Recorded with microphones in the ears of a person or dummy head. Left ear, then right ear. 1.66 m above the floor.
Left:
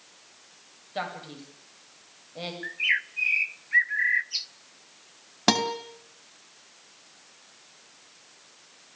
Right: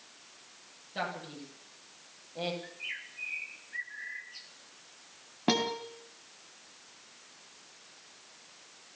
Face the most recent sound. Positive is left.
turn(degrees=65)  # may be behind; listen again after turning